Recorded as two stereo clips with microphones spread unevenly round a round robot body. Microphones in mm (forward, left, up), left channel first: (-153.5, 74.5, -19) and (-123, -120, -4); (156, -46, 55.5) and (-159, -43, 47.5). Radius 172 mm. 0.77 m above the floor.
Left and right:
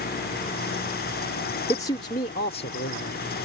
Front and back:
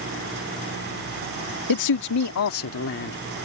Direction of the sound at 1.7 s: 25° left.